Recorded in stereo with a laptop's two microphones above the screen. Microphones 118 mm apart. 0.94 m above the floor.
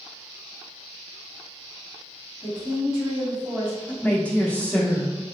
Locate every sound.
2.4 s a woman speaking: 30° right (ahead or behind), 1.7 m
3.9 s a woman speaking: 10° left (ahead or behind), 0.7 m